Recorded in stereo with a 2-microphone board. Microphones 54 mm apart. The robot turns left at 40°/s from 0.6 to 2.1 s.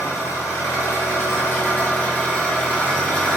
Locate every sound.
0.0 s an engine running: 80° left, 1.3 m; by 3.4 s 20° left, 1.3 m